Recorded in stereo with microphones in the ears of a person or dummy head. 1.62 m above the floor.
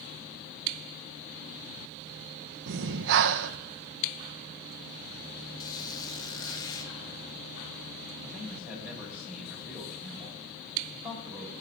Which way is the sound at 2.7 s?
65° right (ahead or behind).